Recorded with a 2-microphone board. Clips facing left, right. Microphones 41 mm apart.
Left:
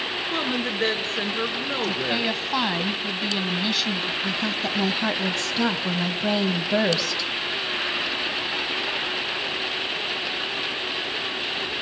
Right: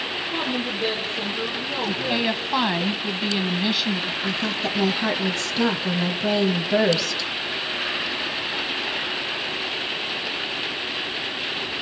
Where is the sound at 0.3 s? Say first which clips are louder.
Even; 65° left (ahead or behind), 3.5 m.